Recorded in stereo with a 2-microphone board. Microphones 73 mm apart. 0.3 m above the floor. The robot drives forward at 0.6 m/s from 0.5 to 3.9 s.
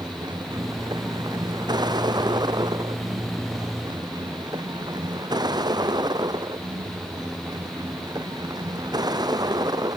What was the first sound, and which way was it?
A vehicle, 70° right (ahead or behind).